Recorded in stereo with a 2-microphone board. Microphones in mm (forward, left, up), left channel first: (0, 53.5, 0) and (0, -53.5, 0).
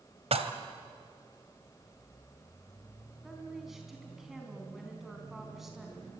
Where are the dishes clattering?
65° right (ahead or behind), 1.8 m.